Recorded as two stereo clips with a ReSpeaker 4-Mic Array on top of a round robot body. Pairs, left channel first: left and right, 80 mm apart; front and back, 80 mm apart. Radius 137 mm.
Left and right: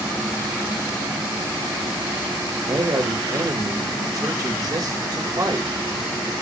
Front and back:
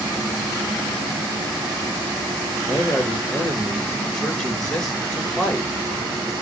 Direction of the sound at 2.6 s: 80° right.